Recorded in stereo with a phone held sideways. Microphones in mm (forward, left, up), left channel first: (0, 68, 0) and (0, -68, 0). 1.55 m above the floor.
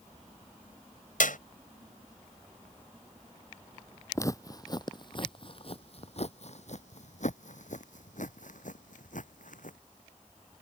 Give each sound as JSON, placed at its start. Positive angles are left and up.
{"t": 1.2, "sound": "a clap", "side_deg": 80}
{"t": 4.2, "sound": "footsteps", "side_deg": 20}